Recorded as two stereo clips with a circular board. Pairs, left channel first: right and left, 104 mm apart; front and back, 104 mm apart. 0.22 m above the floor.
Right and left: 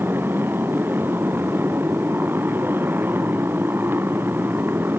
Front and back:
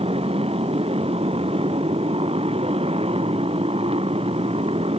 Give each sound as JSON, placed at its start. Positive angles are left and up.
{"t": 0.0, "sound": "a motorcycle", "azimuth_deg": 160}